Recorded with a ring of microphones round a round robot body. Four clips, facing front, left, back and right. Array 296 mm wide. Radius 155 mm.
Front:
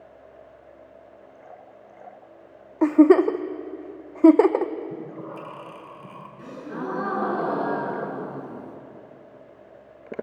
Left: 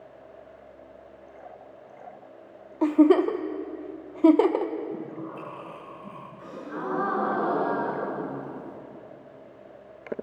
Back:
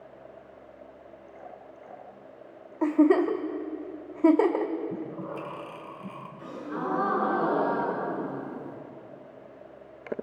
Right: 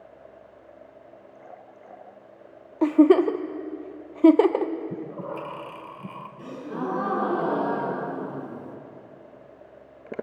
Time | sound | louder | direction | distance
2.8 | a giggle | right 2 dB, front 6 dB | 25° right | 0.8 m
4.9 | breathing | right 2 dB, even | 95° right | 1.9 m
6.4 | a gasp | right 3 dB, even | 50° right | 3.5 m